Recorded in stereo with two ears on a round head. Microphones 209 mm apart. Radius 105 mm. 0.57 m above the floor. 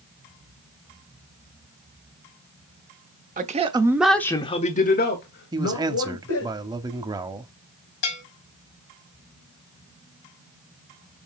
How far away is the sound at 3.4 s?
About 1.1 m.